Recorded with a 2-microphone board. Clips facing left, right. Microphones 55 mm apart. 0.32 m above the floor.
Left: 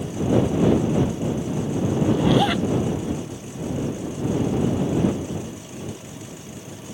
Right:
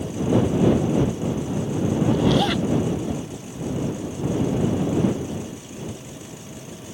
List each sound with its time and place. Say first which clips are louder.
2.1 s a zipper: left 2 dB; 10° left (ahead or behind)